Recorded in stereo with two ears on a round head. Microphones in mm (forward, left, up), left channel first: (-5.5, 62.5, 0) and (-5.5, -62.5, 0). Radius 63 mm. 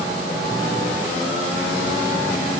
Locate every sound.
Only background noise.